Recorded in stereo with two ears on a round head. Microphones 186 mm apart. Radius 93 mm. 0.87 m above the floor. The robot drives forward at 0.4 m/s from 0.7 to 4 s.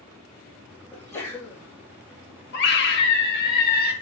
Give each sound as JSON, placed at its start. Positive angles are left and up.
{"t": 0.9, "sound": "a sneeze", "side_deg": 15, "distance_m": 4.5}
{"t": 2.5, "sound": "a scream", "side_deg": 55, "distance_m": 1.8}